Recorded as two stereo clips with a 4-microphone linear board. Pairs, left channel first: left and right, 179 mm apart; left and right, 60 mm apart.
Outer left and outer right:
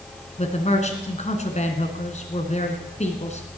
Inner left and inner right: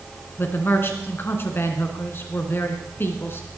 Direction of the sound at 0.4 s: 40° left (ahead or behind).